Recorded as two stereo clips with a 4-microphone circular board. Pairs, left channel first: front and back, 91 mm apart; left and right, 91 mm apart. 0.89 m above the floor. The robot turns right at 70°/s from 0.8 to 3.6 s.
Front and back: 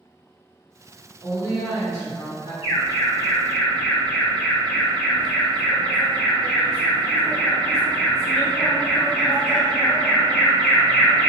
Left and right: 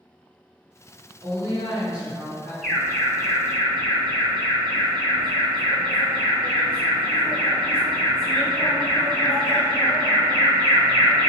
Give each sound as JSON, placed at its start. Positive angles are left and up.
{"t": 1.2, "sound": "a woman speaking", "azimuth_deg": -70, "distance_m": 1.0}
{"t": 2.6, "sound": "an alarm", "azimuth_deg": 10, "distance_m": 1.3}